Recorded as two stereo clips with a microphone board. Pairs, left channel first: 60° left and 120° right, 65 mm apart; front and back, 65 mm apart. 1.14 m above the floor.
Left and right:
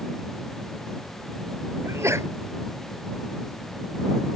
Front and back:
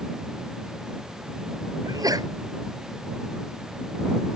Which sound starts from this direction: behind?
A sneeze, at 1.9 s.